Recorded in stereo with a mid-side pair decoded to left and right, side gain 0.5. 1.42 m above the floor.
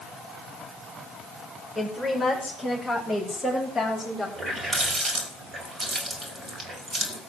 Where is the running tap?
35° right, 4.5 m.